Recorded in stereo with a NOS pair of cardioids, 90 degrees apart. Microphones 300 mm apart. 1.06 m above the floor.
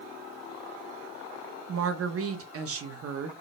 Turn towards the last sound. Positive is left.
turn(degrees=-50)